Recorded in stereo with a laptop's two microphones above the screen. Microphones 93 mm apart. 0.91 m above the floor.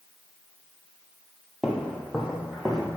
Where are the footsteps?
5° right (ahead or behind), 1.1 m.